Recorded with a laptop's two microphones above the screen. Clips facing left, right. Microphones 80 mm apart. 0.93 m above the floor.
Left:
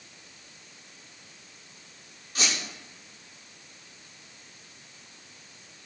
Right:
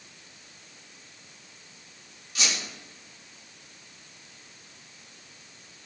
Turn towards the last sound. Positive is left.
turn(degrees=40)  # may be behind; listen again after turning